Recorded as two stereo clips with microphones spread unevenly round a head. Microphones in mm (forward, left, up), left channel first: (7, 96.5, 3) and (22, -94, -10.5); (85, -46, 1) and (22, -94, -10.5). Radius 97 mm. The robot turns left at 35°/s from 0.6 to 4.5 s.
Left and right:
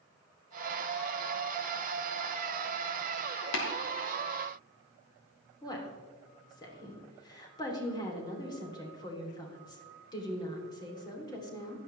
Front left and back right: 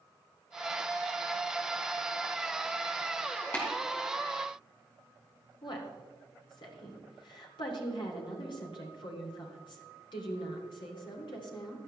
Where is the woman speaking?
25° left, 3 m.